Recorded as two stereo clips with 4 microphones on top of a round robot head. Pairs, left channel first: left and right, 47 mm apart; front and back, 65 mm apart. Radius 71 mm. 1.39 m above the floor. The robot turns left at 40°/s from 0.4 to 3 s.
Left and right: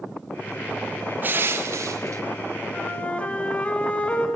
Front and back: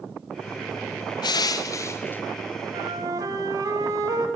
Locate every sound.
1.2 s crushing: 30° right, 0.7 m; by 2.2 s 70° right, 0.7 m
2.7 s a flute: 165° left, 1.8 m; by 4.3 s 150° left, 1.8 m